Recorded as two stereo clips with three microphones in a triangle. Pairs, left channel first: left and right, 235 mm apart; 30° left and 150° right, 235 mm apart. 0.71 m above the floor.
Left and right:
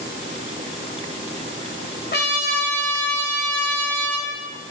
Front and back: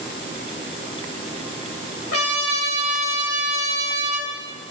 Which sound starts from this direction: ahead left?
A trumpet, at 2.1 s.